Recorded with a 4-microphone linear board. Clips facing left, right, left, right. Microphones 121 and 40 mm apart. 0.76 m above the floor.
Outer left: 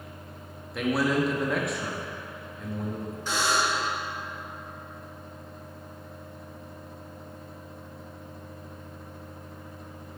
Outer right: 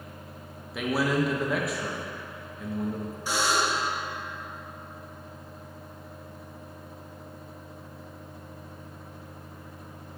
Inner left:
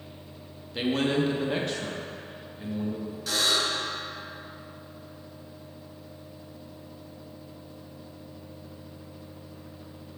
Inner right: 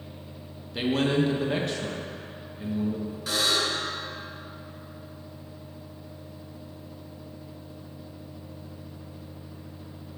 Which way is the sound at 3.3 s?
10° right (ahead or behind).